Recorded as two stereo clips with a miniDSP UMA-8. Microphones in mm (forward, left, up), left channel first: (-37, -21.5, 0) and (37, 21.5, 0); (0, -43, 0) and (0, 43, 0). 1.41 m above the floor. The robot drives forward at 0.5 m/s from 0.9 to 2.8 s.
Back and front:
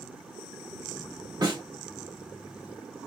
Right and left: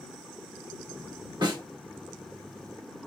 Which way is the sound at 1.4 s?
65° left.